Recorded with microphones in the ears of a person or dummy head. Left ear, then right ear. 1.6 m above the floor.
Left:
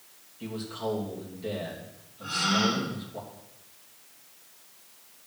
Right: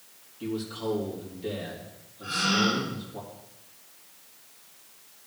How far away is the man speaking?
About 3 m.